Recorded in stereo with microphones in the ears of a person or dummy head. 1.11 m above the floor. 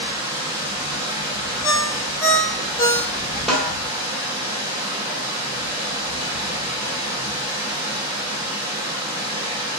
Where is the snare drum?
Centre (ahead or behind), 1.3 m.